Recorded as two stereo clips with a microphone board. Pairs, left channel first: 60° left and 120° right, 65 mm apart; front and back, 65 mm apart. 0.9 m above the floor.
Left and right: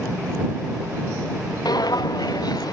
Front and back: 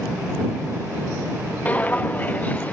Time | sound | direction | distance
1.6 | footsteps | 65° left | ?